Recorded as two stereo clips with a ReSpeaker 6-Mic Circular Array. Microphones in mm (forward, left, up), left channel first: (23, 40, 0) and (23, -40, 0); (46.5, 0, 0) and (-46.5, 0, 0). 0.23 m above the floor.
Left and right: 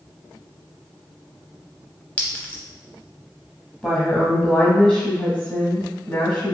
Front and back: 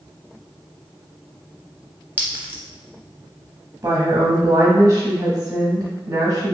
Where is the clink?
140° left, 0.7 m.